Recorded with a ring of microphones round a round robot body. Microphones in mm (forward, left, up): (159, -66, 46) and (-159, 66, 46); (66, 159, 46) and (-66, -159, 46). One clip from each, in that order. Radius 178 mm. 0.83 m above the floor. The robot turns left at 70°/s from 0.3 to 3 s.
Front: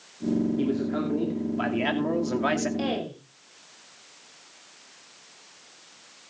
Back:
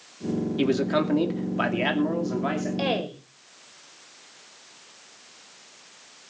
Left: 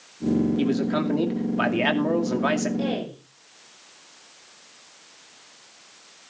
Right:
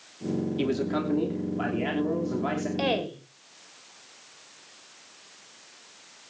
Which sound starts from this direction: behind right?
A woman speaking, at 2.8 s.